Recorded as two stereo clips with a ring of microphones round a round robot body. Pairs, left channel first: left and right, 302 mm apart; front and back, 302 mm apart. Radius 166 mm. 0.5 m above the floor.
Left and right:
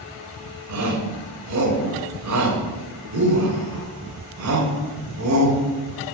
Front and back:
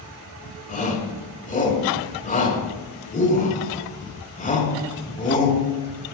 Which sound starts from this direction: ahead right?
A shout, at 0.7 s.